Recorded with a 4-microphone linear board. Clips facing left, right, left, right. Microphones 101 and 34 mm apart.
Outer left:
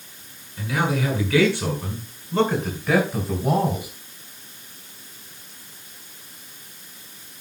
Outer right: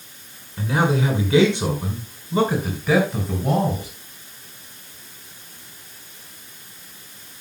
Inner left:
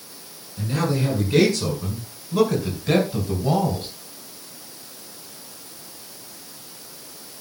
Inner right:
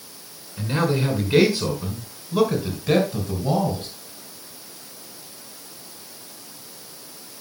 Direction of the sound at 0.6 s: 35° right (ahead or behind).